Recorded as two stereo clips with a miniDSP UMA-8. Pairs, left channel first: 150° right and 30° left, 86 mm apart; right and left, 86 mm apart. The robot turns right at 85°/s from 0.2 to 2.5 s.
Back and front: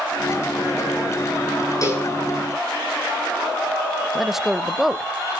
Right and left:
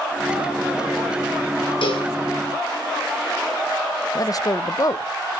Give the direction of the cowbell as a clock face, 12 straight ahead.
3 o'clock.